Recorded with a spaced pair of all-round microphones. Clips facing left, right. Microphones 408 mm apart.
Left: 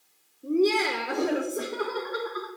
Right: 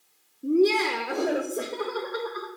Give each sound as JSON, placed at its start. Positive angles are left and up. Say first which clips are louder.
{"t": 0.4, "sound": "laughter", "louder": "right 2 dB", "side_deg": -40, "distance_m": 0.6}